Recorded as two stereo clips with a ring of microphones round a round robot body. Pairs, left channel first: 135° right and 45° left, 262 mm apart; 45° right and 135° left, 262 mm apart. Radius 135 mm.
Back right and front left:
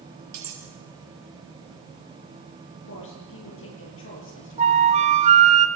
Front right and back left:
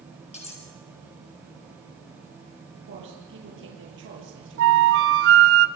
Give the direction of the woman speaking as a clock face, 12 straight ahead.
6 o'clock.